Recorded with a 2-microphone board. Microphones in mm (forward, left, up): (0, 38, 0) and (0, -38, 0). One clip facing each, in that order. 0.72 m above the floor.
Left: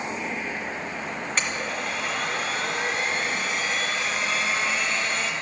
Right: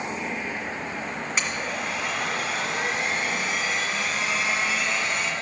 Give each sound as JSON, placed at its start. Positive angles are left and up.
{"t": 1.4, "sound": "a blender", "side_deg": -5, "distance_m": 1.9}